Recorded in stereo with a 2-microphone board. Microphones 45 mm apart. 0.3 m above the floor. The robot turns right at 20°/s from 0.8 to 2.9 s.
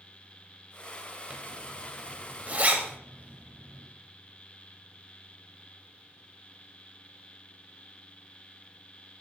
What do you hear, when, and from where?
1.3 s a zipper: 25° right (ahead or behind), 1.2 m; by 3.9 s 35° right (ahead or behind), 1.2 m